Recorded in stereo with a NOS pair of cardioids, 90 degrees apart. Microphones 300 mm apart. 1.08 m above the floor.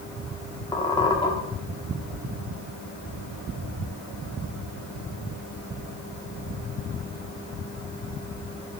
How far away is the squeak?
About 1.3 m.